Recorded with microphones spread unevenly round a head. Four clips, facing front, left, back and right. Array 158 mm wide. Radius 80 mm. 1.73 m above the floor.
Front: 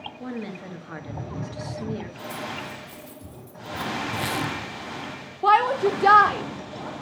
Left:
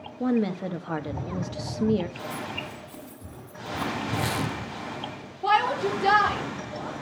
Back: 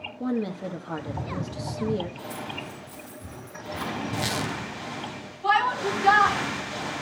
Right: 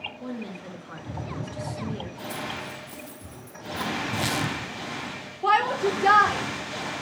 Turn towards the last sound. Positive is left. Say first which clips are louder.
# right 1 dB, front 5 dB
turn(degrees=-5)